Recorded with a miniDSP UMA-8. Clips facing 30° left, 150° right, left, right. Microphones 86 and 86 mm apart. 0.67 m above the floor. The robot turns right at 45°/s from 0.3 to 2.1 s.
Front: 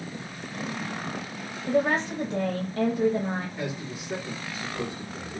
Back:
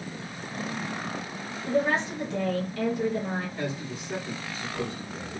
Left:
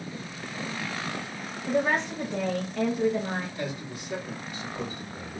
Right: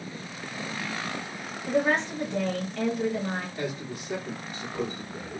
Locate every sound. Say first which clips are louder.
1.7 s a woman speaking: front 1 dB, right 1 dB; straight ahead, 1.2 m; by 3.5 s 20° left, 1.2 m
3.6 s a man speaking: back 1 dB, right 1 dB; 50° right, 2 m